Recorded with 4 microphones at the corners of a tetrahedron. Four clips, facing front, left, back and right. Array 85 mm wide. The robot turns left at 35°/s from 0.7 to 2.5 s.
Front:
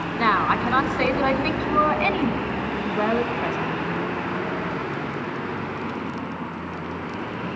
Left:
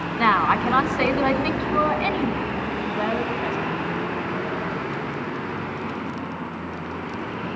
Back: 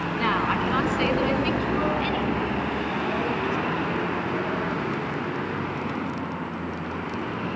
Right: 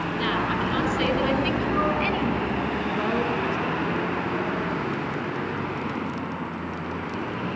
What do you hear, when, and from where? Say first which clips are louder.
0.2 s a woman speaking: left 8 dB, front 5 dB; 70° left, 2.5 m; by 3.6 s 5° left, 2.5 m